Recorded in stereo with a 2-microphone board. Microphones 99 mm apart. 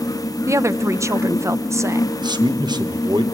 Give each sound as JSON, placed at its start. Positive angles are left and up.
{"t": 0.5, "sound": "a woman speaking", "side_deg": -35, "distance_m": 0.7}
{"t": 2.2, "sound": "a man speaking", "side_deg": -50, "distance_m": 1.6}